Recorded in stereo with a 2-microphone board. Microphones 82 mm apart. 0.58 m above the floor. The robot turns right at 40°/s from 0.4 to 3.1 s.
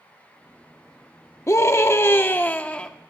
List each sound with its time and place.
1.5 s a scream: 100° left, 0.8 m; by 2.9 s 155° left, 0.8 m